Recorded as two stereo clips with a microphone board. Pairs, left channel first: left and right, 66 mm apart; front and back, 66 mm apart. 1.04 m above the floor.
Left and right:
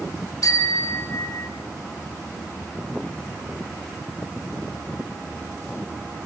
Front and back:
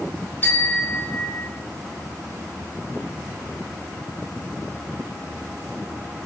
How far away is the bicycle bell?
About 3 m.